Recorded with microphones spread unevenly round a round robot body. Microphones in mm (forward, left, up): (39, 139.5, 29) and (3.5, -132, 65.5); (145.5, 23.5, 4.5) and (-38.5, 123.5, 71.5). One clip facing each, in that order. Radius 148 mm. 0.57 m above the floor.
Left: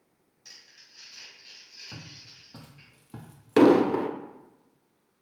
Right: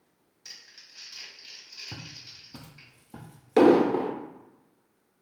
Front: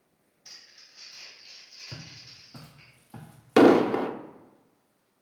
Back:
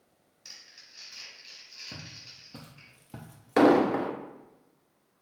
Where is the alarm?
No alarm in this recording.